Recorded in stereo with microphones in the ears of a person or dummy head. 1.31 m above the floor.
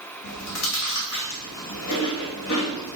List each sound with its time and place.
0.2 s chewing: 65° left (ahead or behind), 2 m